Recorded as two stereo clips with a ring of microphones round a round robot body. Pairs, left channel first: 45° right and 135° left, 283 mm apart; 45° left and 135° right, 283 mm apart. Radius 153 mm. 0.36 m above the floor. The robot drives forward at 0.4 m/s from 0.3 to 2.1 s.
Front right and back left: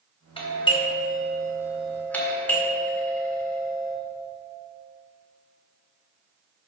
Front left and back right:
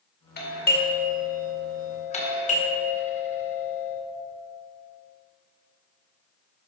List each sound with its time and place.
0.4 s a doorbell: 15° left, 2 m; by 4.0 s 30° left, 1.8 m